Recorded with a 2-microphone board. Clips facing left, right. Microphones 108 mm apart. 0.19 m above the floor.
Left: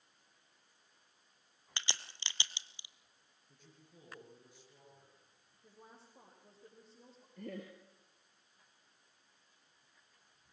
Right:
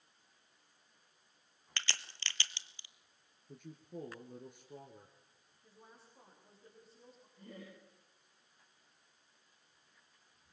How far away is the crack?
About 1.0 m.